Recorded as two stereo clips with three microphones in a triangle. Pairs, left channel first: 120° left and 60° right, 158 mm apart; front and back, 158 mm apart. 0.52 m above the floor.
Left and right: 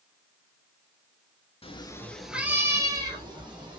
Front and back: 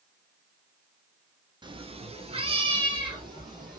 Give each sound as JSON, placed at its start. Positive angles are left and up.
{"t": 1.6, "sound": "a cat meowing", "azimuth_deg": 135, "distance_m": 0.5}